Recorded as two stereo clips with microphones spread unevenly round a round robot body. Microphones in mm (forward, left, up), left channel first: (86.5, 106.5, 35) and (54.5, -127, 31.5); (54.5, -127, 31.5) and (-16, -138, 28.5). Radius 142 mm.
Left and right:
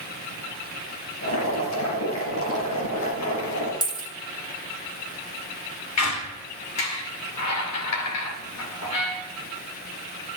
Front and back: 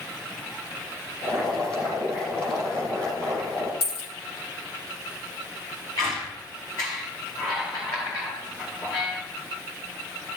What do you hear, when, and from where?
1.2 s boiling: 70° left, 4.5 m
3.8 s a dropped coin: 10° left, 4 m
6.0 s a squeak: 80° left, 2.5 m